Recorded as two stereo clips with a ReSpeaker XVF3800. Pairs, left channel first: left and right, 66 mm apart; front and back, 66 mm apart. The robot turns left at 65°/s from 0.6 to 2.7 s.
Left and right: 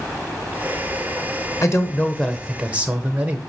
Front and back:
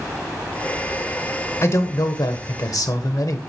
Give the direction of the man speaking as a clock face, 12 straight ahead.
10 o'clock.